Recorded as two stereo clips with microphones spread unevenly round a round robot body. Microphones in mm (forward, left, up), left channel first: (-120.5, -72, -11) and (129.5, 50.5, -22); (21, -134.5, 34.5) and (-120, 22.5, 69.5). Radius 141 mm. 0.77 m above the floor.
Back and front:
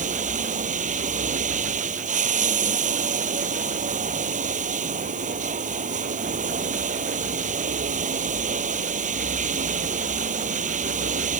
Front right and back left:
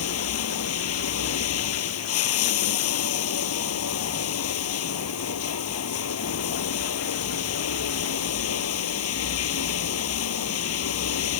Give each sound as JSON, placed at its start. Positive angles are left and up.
{"t": 0.0, "sound": "running water", "azimuth_deg": -40}